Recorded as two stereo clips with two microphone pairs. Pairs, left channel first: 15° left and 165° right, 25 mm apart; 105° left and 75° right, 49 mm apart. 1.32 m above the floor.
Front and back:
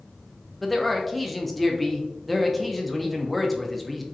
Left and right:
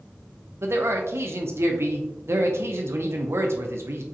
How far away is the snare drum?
I don't hear a snare drum.